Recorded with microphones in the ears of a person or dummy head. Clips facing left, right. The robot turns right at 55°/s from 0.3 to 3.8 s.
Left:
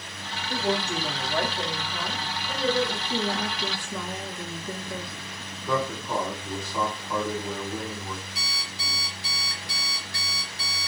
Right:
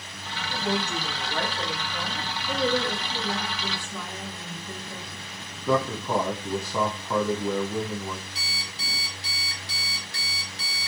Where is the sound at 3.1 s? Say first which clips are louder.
Left 3 dB; 40° left, 1.2 m; by 5.2 s 80° left, 1.2 m.